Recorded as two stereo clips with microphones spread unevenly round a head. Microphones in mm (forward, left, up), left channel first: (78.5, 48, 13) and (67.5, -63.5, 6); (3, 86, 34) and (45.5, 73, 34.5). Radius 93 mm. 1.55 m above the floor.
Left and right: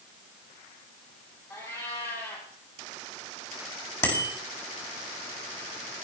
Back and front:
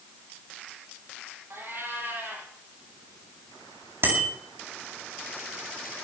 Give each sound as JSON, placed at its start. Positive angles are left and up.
{"t": 1.5, "sound": "a cat meowing", "azimuth_deg": 20, "distance_m": 7.0}
{"t": 4.0, "sound": "a bicycle bell", "azimuth_deg": 20, "distance_m": 7.5}